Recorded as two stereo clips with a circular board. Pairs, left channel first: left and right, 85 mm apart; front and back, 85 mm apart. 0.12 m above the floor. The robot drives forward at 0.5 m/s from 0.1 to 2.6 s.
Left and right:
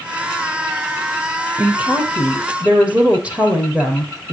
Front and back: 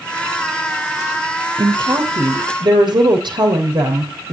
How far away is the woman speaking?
About 2.5 m.